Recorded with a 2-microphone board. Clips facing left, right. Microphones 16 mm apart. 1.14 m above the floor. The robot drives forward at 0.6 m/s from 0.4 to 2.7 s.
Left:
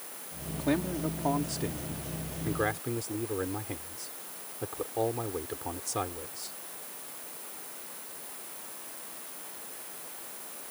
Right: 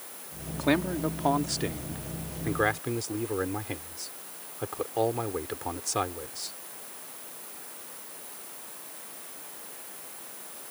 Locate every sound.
0.6 s a man speaking: 45° right (ahead or behind); by 6.6 s 25° right (ahead or behind)